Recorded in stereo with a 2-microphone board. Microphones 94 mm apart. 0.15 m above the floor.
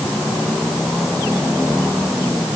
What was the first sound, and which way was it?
Only background noise.